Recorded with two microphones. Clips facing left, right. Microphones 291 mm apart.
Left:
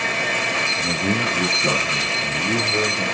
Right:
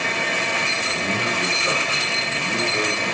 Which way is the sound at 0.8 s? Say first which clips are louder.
Left 6 dB; 45° left (ahead or behind).